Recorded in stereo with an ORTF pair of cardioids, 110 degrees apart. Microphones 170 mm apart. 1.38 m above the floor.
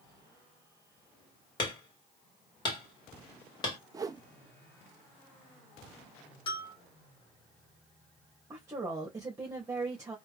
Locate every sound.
1.6 s hammering: 30° left, 2.5 m
3.9 s a whoosh: 20° right, 0.6 m
6.5 s a bell: 30° left, 1.6 m
8.5 s a woman speaking: 20° right, 1.7 m